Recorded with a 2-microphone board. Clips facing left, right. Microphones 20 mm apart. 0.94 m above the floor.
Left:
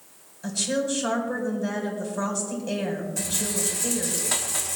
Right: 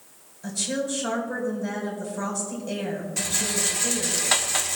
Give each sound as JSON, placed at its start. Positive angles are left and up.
{"t": 0.4, "sound": "a woman speaking", "side_deg": 20, "distance_m": 4.0}
{"t": 3.2, "sound": "a rattle", "side_deg": -40, "distance_m": 0.9}